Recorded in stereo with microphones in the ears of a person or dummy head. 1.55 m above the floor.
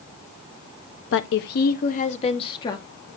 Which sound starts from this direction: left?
A woman speaking, at 1.1 s.